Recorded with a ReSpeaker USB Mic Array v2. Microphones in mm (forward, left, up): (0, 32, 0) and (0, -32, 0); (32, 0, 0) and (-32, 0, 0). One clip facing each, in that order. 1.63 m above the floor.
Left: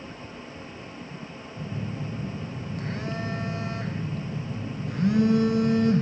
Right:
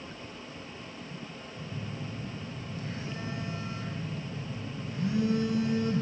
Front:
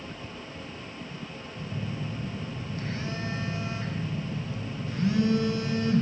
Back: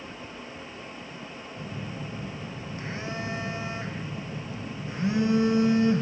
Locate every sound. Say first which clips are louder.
1.6 s a phone buzzing: left 6 dB, front 2 dB; 110° left, 0.9 m